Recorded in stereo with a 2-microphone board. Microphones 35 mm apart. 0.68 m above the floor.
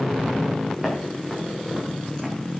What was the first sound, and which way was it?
Footsteps, 15° right (ahead or behind).